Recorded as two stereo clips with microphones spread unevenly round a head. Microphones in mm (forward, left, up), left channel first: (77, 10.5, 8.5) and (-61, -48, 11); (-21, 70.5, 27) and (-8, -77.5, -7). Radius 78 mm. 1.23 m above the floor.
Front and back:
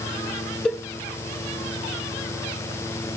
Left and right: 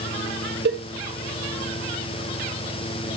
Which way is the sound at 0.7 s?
65° right.